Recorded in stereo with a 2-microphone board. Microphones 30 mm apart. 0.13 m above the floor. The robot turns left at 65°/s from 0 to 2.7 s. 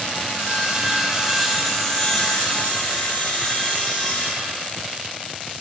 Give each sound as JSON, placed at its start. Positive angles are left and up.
{"t": 0.4, "sound": "sawing", "azimuth_deg": -115, "distance_m": 2.0}